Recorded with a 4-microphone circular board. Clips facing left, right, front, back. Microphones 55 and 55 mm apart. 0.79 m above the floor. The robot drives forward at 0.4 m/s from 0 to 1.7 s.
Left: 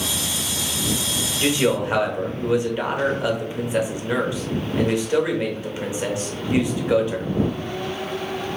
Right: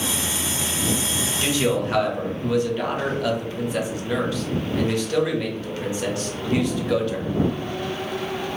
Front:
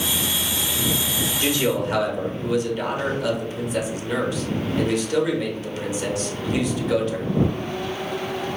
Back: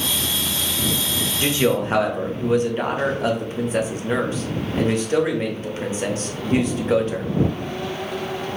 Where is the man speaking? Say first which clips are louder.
Left 2 dB, back 3 dB; 135° left, 0.7 m; by 7.4 s 145° left, 0.8 m.